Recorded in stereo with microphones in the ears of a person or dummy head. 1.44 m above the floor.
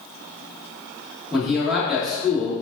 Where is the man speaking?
Centre (ahead or behind), 1.9 m.